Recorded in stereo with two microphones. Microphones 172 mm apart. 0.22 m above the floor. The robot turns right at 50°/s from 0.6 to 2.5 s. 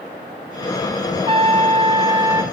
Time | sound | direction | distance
1.3 | a trumpet | 95° right | 1.0 m